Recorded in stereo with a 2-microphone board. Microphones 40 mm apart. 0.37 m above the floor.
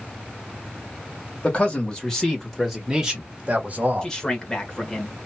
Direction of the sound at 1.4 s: 30° left (ahead or behind).